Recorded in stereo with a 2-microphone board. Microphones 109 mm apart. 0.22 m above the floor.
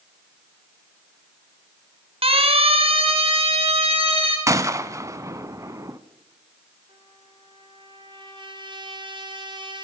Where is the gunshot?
30° right (ahead or behind), 0.8 m.